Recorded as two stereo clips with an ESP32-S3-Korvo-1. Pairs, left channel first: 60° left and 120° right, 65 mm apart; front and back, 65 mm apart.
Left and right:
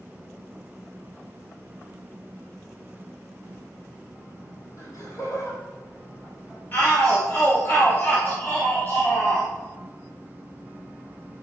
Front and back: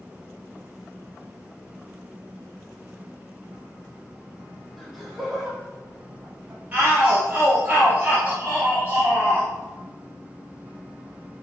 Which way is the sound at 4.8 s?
90° left.